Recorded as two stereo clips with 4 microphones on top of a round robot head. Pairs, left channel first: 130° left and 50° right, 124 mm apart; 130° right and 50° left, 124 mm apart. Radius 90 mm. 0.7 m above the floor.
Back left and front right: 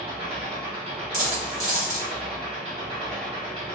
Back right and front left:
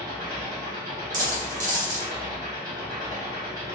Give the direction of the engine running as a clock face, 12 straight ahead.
12 o'clock.